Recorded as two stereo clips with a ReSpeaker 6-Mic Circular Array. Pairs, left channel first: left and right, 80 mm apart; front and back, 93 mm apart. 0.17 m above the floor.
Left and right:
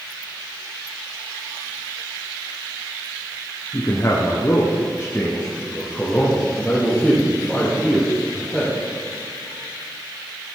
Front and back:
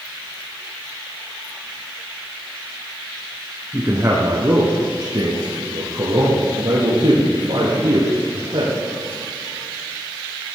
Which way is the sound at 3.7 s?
120° left.